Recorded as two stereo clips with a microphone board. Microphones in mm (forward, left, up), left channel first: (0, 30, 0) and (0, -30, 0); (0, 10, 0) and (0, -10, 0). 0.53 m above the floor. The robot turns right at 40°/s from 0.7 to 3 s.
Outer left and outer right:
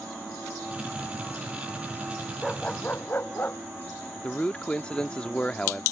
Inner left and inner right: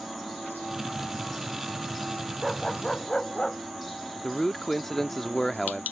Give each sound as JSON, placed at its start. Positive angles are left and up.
{"t": 2.4, "sound": "a dog barking", "side_deg": 10}
{"t": 4.2, "sound": "a man speaking", "side_deg": 15}